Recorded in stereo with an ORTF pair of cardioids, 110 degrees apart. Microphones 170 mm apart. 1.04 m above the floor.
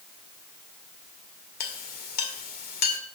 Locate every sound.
1.6 s a clink: 60° left, 2 m